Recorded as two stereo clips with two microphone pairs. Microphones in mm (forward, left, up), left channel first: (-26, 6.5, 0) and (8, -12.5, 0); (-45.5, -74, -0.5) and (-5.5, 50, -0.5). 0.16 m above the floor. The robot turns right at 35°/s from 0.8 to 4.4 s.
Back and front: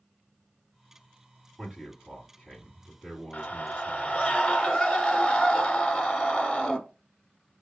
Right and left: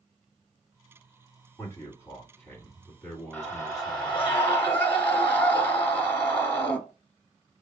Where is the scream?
175° right, 1.1 m; by 6.8 s 140° right, 1.1 m.